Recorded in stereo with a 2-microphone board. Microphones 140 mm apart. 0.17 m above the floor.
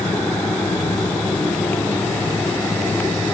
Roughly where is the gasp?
I don't hear a gasp.